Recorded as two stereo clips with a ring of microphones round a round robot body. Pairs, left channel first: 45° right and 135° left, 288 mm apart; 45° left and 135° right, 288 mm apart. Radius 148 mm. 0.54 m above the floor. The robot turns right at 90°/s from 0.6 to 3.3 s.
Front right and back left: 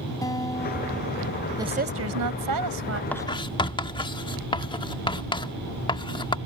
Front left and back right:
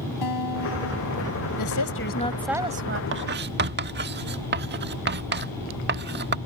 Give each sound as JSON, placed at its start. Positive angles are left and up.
{"t": 0.2, "sound": "a guitar", "azimuth_deg": 35}
{"t": 1.6, "sound": "a woman speaking", "azimuth_deg": 55}
{"t": 3.1, "sound": "writing", "azimuth_deg": -125}